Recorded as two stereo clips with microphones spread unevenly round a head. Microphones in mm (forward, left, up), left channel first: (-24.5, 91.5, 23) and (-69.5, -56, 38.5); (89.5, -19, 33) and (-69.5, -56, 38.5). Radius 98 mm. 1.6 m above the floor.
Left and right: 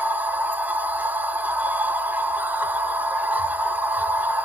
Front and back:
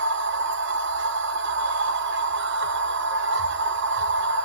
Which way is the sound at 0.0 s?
175° left.